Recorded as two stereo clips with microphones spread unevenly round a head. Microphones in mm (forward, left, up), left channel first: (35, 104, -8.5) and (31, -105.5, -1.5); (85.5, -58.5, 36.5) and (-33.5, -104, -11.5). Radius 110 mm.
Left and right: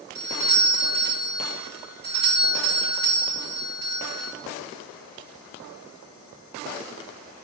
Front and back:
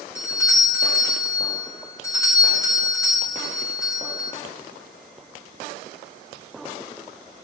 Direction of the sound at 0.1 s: 50° right.